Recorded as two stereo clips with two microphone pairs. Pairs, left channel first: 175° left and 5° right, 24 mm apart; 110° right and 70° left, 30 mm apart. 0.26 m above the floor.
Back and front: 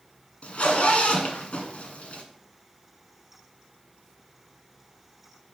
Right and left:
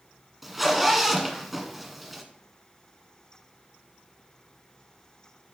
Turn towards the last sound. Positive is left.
turn(degrees=155)